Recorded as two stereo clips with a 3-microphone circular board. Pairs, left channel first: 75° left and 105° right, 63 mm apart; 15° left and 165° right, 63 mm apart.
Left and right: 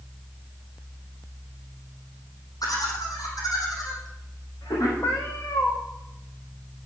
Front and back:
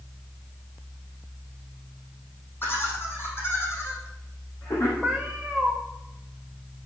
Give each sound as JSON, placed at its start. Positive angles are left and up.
{"t": 2.6, "sound": "laughter", "azimuth_deg": 70, "distance_m": 6.0}
{"t": 5.0, "sound": "a cat meowing", "azimuth_deg": 115, "distance_m": 2.5}